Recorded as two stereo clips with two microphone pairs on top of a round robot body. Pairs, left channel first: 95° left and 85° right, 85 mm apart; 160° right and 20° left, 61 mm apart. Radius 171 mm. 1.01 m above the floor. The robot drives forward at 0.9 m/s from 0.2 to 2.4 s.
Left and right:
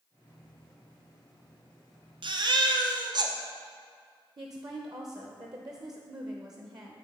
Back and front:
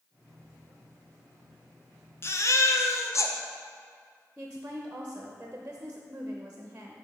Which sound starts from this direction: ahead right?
A woman speaking, at 4.4 s.